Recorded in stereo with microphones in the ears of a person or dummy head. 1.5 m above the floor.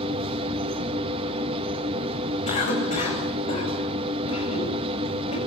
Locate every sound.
0.0 s a machine running: 30° right (ahead or behind), 2.0 m
2.5 s a cough: 40° left (ahead or behind), 9.5 m